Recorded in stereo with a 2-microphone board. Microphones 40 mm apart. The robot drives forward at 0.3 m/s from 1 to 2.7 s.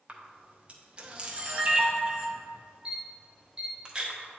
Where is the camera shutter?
25° right (ahead or behind), 1.0 m; by 4.4 s 20° right (ahead or behind), 1.4 m.